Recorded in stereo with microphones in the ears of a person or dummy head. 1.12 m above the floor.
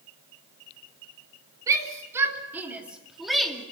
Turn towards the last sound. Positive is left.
turn(degrees=5)  # may be behind; listen again after turning